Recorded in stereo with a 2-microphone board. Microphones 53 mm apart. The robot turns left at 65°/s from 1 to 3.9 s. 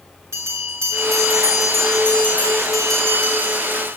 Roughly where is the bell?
Ahead right.